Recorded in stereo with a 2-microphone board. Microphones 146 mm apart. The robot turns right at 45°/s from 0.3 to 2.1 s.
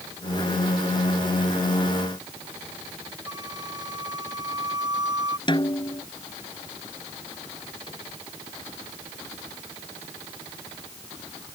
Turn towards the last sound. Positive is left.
turn(degrees=35)  # may be behind; listen again after turning